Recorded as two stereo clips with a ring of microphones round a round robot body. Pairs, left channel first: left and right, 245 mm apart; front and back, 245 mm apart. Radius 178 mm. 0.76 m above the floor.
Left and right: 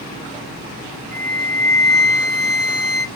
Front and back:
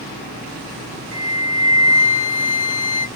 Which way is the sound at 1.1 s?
55° right.